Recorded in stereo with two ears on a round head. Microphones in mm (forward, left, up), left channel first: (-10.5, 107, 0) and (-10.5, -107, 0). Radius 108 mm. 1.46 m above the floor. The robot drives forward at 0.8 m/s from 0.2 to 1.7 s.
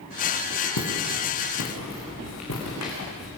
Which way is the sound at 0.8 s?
75° left (ahead or behind).